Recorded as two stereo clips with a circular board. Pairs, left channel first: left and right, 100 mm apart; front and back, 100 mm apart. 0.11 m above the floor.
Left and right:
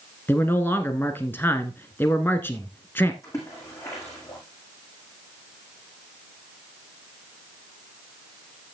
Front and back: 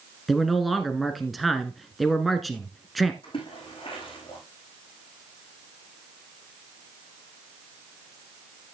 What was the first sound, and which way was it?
A man speaking, 90° left.